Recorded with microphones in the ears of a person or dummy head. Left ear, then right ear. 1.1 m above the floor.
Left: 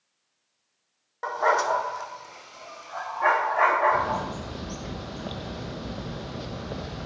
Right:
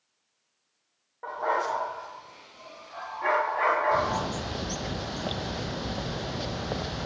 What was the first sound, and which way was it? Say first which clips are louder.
A dog barking: left 5 dB; 75° left (ahead or behind).